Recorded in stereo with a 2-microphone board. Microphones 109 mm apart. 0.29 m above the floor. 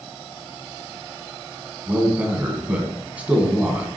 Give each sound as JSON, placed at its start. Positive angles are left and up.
{"t": 1.9, "sound": "a man speaking", "side_deg": -10, "distance_m": 1.8}